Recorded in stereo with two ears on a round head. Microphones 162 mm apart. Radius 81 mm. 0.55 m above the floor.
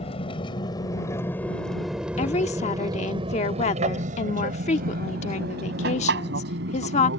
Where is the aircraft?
35° left (ahead or behind); by 7.2 s 70° right (ahead or behind).